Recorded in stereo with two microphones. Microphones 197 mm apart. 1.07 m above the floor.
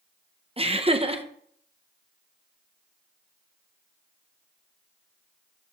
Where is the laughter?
30° right (ahead or behind), 1.0 m.